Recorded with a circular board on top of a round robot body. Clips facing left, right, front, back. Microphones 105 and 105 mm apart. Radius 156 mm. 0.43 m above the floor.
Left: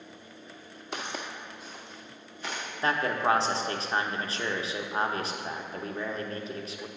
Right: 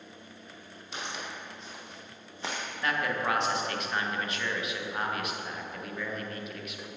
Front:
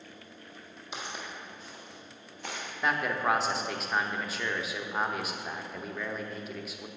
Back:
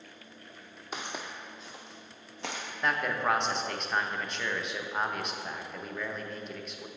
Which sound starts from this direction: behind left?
Footsteps, at 0.9 s.